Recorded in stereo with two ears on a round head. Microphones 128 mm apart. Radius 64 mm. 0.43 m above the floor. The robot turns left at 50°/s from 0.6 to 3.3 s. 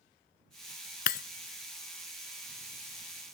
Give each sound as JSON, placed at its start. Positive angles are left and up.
{"t": 1.1, "sound": "breaking glass", "side_deg": 65}